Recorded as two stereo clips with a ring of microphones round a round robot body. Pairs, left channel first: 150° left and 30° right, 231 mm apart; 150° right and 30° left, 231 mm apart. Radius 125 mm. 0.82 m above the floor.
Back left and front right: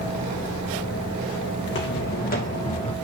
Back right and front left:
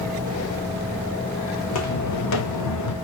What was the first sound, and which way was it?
Footsteps, 170° right.